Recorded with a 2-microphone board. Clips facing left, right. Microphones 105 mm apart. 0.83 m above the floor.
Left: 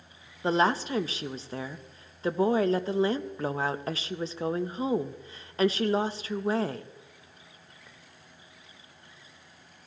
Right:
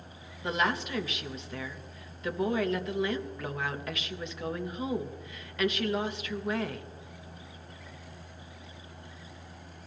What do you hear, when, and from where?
0.4 s a woman speaking: 35° left (ahead or behind), 0.6 m